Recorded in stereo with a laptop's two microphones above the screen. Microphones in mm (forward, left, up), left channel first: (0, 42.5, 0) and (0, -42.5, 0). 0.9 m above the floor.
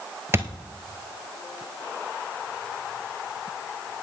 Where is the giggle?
I don't hear a giggle.